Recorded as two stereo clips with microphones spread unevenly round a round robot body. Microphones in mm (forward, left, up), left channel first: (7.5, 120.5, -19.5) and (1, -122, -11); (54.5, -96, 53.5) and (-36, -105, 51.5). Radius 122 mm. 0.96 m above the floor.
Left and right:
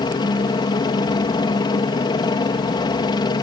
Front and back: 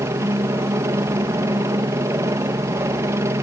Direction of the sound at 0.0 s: 150° left.